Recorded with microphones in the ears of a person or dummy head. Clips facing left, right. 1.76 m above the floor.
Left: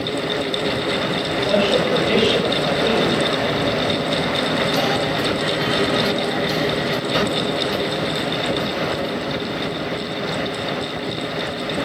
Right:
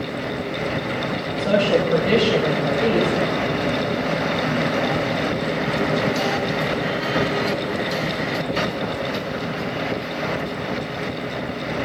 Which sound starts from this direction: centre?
A woman speaking, at 1.4 s.